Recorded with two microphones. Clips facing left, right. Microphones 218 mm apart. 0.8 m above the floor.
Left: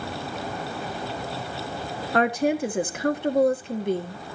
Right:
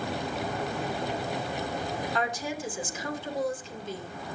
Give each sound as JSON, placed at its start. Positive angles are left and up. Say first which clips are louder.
{"t": 2.1, "sound": "a woman speaking", "louder": "left 10 dB", "side_deg": 65, "distance_m": 1.6}